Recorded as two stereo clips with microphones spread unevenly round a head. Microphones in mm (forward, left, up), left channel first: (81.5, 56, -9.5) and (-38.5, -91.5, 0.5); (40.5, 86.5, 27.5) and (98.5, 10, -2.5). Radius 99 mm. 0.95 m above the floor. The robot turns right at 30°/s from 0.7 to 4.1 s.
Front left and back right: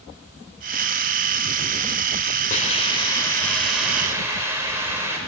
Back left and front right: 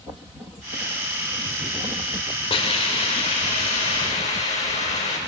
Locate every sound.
2.5 s a hiss: 105° left, 2.5 m; by 5.2 s 155° left, 2.5 m